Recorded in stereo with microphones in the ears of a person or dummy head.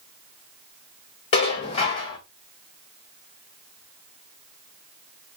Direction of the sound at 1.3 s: 35° left (ahead or behind).